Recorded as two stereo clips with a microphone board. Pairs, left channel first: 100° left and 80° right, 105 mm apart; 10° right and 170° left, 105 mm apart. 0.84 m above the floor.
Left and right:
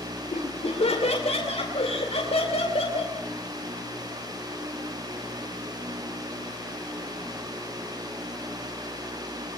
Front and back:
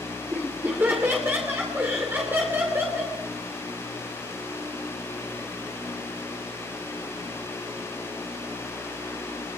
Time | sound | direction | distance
0.3 | laughter | 100° left | 2.5 m